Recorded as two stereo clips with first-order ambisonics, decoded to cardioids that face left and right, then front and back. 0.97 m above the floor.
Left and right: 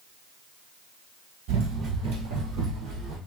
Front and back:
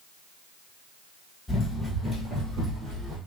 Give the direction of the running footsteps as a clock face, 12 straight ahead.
3 o'clock.